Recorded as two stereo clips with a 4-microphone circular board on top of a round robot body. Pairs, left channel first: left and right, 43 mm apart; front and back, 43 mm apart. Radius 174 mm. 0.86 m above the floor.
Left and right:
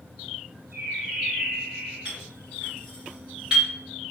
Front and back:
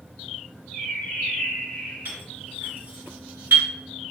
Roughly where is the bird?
Ahead right.